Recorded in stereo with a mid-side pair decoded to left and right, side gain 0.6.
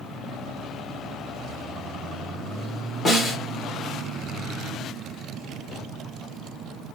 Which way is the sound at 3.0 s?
25° left.